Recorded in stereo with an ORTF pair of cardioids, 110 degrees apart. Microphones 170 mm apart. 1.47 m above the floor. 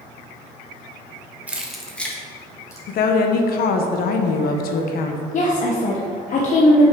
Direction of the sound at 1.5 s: 10° right.